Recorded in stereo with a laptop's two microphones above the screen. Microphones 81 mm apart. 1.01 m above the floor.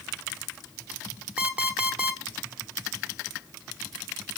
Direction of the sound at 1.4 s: 20° right (ahead or behind).